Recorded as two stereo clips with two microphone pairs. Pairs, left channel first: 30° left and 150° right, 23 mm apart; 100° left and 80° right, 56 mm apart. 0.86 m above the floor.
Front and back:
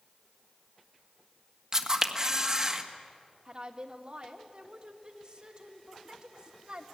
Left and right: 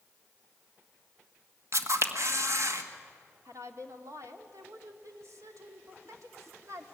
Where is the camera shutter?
90° right, 1.5 m.